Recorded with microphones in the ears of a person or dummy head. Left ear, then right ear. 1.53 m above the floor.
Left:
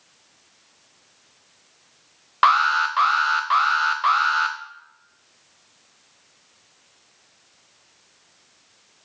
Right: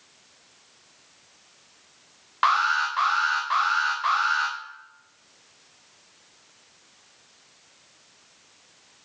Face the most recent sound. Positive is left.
turn(degrees=25)  # may be behind; listen again after turning